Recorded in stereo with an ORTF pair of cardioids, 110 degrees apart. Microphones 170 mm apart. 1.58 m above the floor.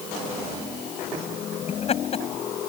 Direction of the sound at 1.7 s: 35° left.